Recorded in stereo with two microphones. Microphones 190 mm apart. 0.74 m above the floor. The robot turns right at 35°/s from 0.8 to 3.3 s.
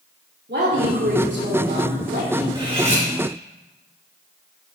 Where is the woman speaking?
105° right, 2.5 m; by 2.5 s 50° right, 2.5 m.